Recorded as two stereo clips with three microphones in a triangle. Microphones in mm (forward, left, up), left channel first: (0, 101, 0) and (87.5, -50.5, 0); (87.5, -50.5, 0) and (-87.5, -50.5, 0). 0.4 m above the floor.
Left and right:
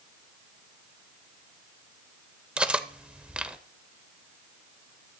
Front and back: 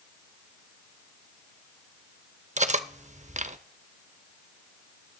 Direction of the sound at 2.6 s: 145° right.